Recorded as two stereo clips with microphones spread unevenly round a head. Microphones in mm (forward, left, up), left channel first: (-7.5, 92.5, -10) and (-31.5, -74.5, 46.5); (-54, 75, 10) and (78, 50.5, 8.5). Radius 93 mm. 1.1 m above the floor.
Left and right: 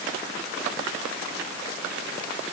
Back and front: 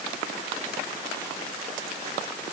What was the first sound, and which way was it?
Only background noise.